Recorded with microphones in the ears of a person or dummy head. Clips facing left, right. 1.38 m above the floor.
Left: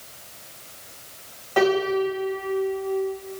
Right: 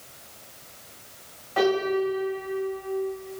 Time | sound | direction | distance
1.6 | a piano | 55° left (ahead or behind) | 6.5 m